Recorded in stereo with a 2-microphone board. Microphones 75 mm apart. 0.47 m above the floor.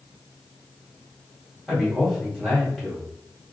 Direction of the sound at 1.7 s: Centre (ahead or behind).